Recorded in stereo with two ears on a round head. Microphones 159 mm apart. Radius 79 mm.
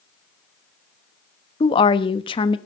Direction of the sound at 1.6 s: 30° left (ahead or behind).